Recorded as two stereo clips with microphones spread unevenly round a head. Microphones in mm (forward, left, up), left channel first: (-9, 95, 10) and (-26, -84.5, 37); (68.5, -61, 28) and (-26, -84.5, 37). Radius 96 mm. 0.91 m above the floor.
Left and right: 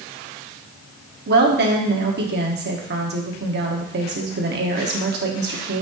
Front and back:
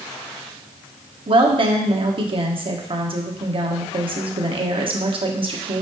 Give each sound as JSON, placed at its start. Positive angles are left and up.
{"t": 1.3, "sound": "a woman speaking", "azimuth_deg": -130, "distance_m": 1.5}